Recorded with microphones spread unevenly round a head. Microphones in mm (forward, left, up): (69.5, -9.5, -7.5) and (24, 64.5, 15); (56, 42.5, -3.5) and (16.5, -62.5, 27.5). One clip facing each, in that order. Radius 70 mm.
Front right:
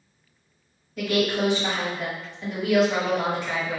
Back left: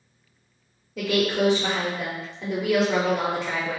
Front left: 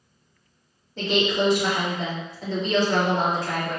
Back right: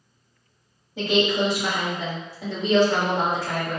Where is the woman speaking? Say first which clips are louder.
Back left 1 dB, back right 1 dB; 165° left, 1.2 m.